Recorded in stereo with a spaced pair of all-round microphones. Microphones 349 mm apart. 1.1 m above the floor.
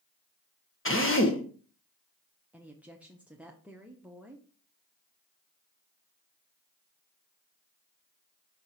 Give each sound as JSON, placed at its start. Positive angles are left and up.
{"t": 0.8, "sound": "a drill", "side_deg": 35, "distance_m": 1.1}
{"t": 2.5, "sound": "a woman speaking", "side_deg": -5, "distance_m": 0.8}